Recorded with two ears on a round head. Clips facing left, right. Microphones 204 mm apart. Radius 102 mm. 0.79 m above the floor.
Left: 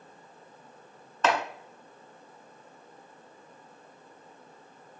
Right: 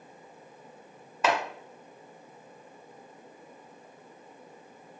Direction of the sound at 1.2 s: 10° right (ahead or behind).